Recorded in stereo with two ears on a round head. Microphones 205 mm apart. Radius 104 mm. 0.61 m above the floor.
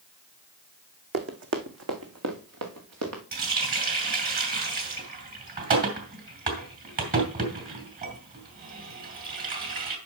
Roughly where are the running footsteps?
Right.